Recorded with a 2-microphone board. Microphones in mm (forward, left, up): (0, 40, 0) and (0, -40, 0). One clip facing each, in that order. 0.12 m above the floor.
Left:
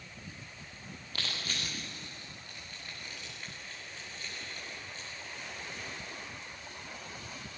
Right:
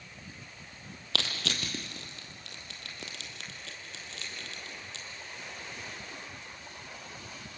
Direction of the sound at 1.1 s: 70° right (ahead or behind).